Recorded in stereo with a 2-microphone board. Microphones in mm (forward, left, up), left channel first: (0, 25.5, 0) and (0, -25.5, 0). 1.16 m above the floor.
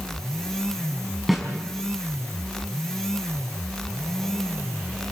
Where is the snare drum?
Centre (ahead or behind), 5.5 m.